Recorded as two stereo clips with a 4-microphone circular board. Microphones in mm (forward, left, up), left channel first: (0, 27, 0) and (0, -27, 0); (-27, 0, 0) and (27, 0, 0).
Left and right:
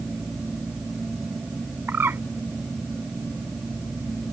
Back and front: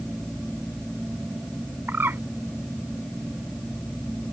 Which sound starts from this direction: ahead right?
A bird, at 1.9 s.